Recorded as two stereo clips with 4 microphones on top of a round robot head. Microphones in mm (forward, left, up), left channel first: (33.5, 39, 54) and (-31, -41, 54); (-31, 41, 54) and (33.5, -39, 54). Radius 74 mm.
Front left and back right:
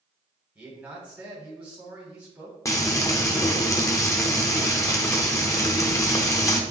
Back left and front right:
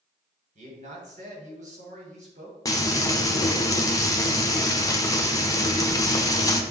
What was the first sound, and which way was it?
A man speaking, 50° right.